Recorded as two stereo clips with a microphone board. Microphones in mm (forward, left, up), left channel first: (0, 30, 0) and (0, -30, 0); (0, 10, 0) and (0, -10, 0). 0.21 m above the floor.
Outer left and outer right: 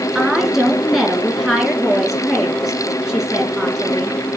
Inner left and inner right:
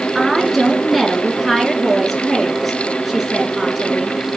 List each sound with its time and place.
0.1 s a woman speaking: 5° right (ahead or behind), 3 m